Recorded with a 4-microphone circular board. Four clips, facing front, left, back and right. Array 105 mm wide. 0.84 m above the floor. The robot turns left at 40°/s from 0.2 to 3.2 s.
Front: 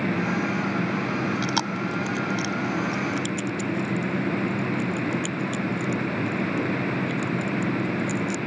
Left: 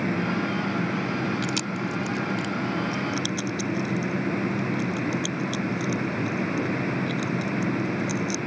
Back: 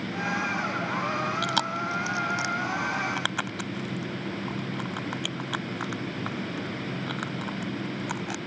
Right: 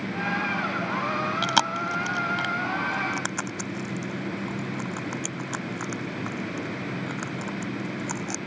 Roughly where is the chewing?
Right.